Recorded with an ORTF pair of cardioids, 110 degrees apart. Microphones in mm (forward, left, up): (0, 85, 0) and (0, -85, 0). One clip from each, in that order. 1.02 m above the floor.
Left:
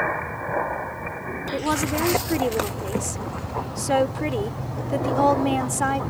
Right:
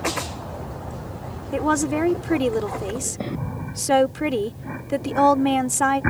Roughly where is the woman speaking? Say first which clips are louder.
Right 3 dB; ahead.